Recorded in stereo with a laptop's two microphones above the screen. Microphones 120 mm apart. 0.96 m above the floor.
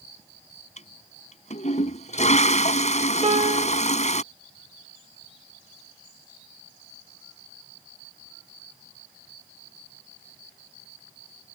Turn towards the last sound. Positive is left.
turn(degrees=-65)  # may be behind; listen again after turning